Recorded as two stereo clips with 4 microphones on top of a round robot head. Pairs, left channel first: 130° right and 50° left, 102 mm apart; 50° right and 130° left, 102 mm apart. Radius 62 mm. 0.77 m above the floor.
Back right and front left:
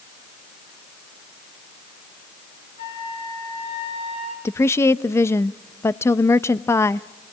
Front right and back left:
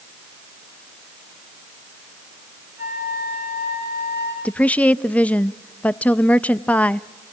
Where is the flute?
165° right, 5 m.